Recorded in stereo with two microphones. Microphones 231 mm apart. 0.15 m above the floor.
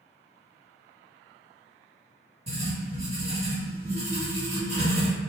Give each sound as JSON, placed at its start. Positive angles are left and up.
{"t": 2.5, "sound": "writing", "side_deg": -30, "distance_m": 1.8}